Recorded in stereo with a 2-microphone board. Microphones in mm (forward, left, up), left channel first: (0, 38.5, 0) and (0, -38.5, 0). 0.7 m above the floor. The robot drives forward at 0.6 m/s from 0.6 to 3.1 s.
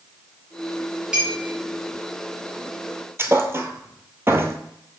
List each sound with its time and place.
1.1 s a clink: 10° right (ahead or behind), 3 m
3.2 s a thud: 30° right (ahead or behind), 1.0 m